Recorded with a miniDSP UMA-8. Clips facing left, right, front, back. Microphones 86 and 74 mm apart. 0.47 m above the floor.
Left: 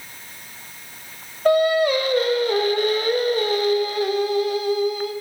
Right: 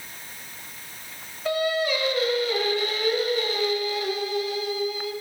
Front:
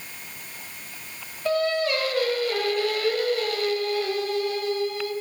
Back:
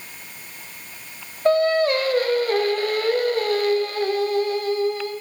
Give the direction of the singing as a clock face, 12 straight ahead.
8 o'clock.